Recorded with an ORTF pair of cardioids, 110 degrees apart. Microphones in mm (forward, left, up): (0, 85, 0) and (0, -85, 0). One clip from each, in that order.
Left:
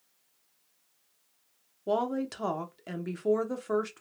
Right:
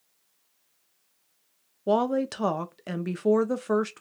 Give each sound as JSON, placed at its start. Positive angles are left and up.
{"t": 1.9, "sound": "a woman speaking", "azimuth_deg": -25, "distance_m": 0.7}